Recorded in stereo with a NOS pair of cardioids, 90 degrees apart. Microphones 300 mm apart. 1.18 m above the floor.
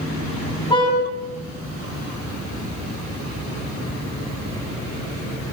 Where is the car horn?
15° left, 5.5 m.